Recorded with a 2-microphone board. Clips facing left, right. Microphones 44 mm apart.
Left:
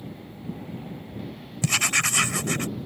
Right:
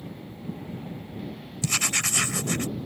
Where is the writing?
45° left (ahead or behind).